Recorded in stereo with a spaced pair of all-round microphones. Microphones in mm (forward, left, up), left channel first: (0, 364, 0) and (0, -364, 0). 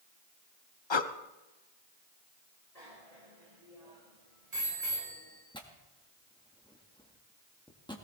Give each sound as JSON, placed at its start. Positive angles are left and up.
{"t": 0.9, "sound": "breathing", "side_deg": 40, "distance_m": 0.7}
{"t": 2.8, "sound": "a bicycle bell", "side_deg": -70, "distance_m": 6.0}
{"t": 5.5, "sound": "tearing paper", "side_deg": 5, "distance_m": 1.6}